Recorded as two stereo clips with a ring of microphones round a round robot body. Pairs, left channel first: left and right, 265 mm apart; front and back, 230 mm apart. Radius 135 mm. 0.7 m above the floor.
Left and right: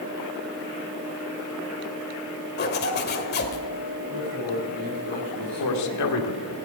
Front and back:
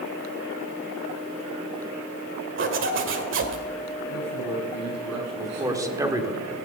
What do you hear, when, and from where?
2.6 s a zipper: 145° left, 1.5 m
4.1 s a man speaking: 150° right, 7 m
5.4 s a man speaking: 105° left, 1.8 m